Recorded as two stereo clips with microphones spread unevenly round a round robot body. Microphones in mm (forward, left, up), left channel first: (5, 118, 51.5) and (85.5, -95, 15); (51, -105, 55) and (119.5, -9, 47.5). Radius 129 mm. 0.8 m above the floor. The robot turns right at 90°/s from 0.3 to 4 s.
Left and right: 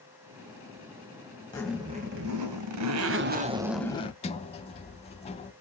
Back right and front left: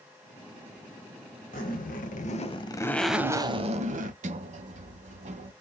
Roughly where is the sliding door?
Ahead left.